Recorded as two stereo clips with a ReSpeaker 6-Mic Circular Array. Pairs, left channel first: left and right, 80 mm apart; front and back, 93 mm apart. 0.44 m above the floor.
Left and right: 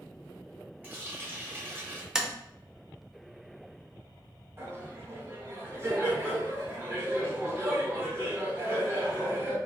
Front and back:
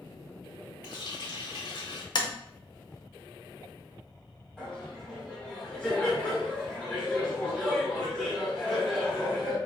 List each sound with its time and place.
0.8 s a running tap: 25° right, 1.0 m
2.1 s tapping: 10° right, 0.5 m
4.6 s laughter: 75° right, 1.6 m